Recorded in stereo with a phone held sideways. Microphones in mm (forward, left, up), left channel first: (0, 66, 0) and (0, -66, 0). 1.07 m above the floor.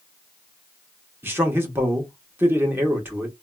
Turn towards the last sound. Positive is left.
turn(degrees=-15)  # may be behind; listen again after turning